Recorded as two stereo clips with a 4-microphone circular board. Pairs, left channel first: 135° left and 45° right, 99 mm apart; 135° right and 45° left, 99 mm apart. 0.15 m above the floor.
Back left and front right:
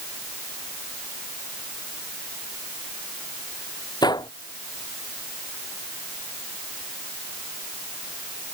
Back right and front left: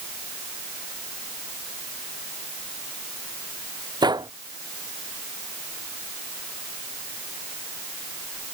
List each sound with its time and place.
4.0 s a gunshot: 90° left